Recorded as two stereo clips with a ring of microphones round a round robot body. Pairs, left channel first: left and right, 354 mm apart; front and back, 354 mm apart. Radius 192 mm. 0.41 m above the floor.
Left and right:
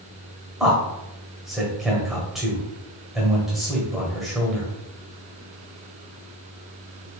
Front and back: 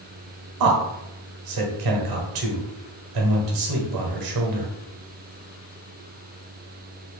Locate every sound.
0.6 s a man speaking: straight behind, 1.3 m